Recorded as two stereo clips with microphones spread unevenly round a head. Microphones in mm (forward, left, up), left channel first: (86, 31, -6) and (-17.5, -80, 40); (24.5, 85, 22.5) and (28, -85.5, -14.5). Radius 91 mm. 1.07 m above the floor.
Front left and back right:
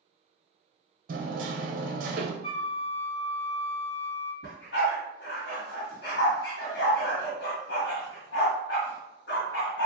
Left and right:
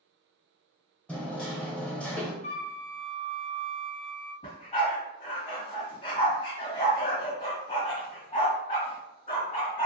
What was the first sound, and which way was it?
Hammering, 175° right.